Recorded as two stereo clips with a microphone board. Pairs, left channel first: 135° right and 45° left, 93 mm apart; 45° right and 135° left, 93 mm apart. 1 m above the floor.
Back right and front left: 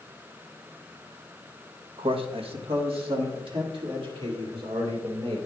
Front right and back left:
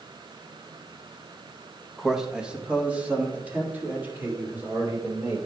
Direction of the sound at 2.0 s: 45° left.